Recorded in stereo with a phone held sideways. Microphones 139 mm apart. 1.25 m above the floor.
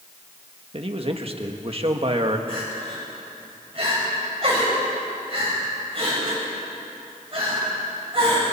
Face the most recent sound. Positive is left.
turn(degrees=-45)  # may be behind; listen again after turning